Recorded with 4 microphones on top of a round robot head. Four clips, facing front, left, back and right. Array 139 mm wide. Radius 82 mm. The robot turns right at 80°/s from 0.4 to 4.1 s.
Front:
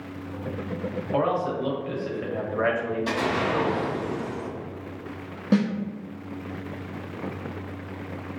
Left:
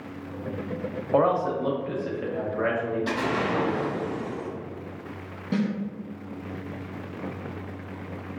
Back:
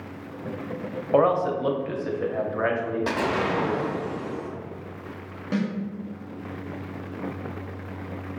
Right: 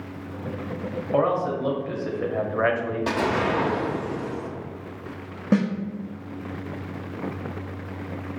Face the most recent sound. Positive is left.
turn(degrees=-65)